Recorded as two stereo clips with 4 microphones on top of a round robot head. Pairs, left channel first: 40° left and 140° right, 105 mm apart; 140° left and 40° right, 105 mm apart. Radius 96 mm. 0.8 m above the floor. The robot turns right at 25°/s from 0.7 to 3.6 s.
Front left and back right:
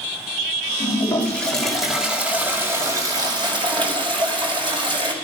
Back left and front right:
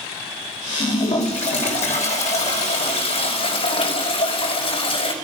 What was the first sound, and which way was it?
A toilet flushing, 110° left.